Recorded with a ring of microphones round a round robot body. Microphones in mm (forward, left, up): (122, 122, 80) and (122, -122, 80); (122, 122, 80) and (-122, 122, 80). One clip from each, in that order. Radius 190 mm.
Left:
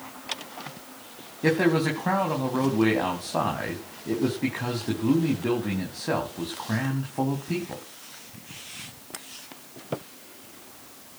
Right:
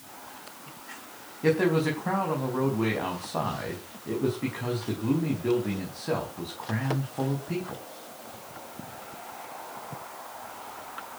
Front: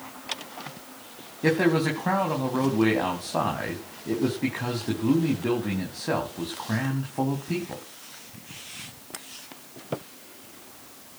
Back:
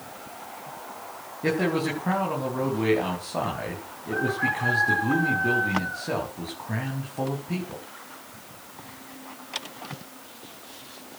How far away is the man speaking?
About 4.5 m.